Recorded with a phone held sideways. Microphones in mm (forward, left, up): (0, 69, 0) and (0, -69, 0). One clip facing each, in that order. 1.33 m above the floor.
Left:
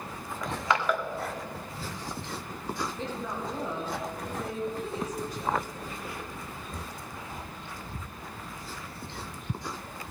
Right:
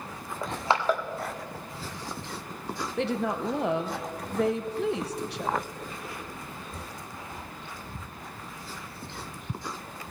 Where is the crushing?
30° right (ahead or behind), 1.3 m.